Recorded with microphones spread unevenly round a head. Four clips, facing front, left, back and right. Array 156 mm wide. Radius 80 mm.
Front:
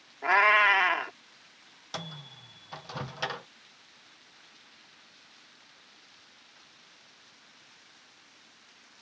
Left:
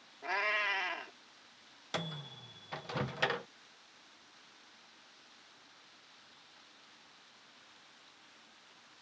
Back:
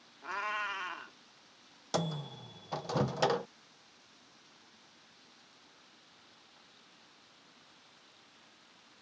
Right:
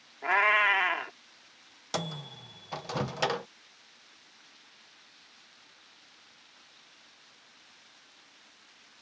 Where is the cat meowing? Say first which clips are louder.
Right 10 dB, front 15 dB; 30° right.